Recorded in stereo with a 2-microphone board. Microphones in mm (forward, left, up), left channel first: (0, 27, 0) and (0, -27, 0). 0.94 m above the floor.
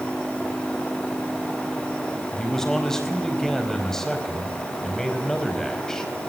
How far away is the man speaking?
About 4.5 m.